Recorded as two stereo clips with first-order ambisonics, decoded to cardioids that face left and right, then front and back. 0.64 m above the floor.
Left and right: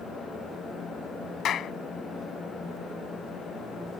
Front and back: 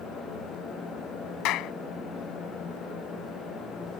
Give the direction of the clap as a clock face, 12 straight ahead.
11 o'clock.